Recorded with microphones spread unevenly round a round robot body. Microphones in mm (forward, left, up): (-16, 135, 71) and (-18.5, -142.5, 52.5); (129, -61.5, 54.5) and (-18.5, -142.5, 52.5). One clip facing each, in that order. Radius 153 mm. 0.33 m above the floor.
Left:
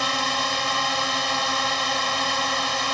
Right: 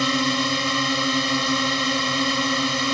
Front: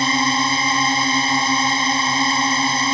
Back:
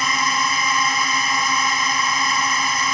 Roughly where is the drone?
Ahead right.